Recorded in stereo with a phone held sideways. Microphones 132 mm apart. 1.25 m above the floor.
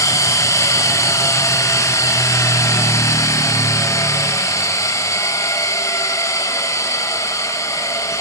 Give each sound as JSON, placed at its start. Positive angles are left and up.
{"t": 0.0, "sound": "a machine running", "side_deg": 25, "distance_m": 1.1}